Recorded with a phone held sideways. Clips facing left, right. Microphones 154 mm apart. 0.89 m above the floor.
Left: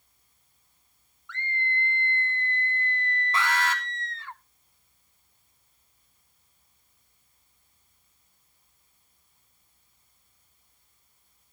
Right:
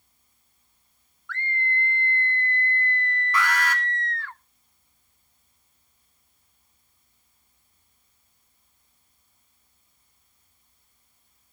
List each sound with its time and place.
1.3 s a scream: 20° left (ahead or behind), 0.9 m
3.3 s an alarm: 25° left (ahead or behind), 3.5 m